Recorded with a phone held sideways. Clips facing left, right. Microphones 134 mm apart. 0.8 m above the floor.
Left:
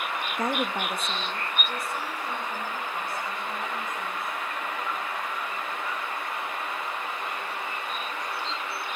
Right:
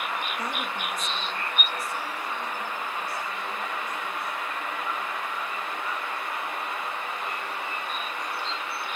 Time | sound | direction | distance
0.4 | a woman speaking | 45° left (ahead or behind) | 0.7 m